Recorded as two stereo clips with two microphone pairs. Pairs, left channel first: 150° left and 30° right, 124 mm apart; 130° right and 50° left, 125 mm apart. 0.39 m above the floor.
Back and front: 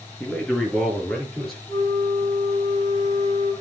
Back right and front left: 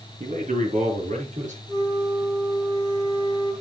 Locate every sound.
0.2 s a man speaking: 65° left, 4.5 m; by 1.6 s 60° left, 6 m
1.7 s a flute: 95° left, 3.5 m